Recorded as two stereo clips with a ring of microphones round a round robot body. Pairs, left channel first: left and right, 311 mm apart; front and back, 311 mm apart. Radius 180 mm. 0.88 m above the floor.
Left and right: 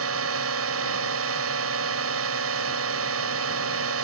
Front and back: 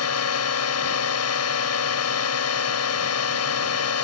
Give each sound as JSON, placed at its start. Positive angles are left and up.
{"t": 0.0, "sound": "a drone", "azimuth_deg": -40}